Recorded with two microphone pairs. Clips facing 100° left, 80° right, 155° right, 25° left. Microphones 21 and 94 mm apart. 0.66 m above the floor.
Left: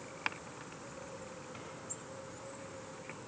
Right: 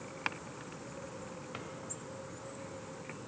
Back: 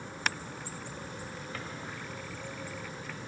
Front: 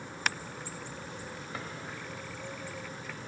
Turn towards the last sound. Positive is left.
turn(degrees=-50)